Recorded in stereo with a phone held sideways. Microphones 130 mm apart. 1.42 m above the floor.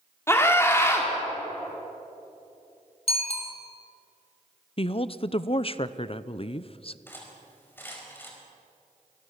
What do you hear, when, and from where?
0.3 s a scream: 20° left (ahead or behind), 4 m
3.1 s a bicycle bell: 50° left (ahead or behind), 3.5 m
4.8 s a woman speaking: 45° left (ahead or behind), 0.7 m
7.1 s cutlery clinking: 15° left (ahead or behind), 5 m